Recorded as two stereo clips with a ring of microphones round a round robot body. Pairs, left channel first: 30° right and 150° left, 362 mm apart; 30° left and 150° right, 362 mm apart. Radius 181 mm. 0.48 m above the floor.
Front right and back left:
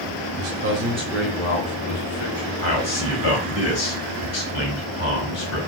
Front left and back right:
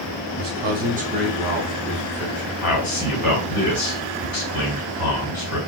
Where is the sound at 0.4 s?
155° left, 1.0 m; by 2.5 s 55° right, 1.4 m.